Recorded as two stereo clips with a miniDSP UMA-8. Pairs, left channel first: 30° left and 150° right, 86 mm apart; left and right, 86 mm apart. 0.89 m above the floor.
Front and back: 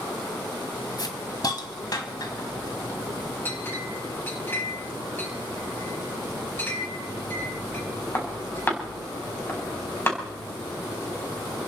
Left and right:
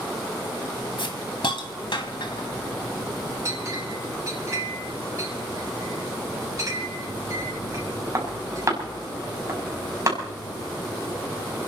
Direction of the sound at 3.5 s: 35° right.